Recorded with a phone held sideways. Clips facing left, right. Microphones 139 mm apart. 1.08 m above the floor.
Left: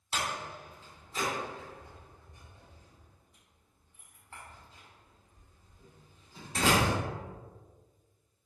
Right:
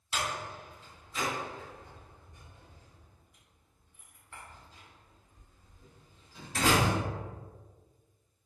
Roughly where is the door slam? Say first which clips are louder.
Even; left.